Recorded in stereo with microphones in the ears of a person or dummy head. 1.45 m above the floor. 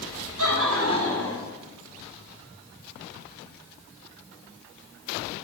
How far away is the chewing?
No chewing in this recording.